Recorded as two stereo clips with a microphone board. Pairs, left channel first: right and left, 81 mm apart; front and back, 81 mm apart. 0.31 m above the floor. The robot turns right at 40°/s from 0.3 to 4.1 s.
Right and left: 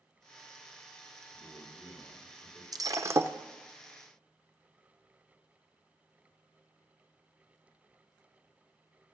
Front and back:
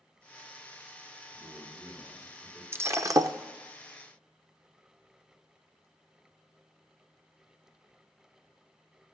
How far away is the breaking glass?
About 0.7 m.